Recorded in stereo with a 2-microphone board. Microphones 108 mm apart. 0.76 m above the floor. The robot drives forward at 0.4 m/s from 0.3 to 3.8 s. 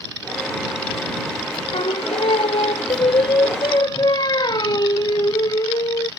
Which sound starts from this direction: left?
Singing, at 1.7 s.